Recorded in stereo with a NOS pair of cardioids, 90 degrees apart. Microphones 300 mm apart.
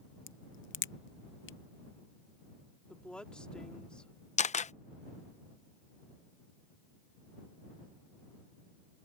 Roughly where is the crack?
Ahead left.